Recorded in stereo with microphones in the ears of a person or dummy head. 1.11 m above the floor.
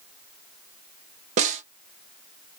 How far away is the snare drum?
About 0.5 m.